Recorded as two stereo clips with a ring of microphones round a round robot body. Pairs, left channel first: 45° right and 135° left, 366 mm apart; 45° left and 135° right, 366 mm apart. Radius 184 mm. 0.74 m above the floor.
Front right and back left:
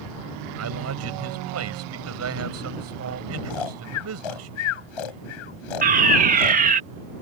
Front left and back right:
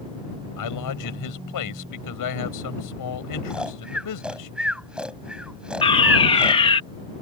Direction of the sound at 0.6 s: 85° left.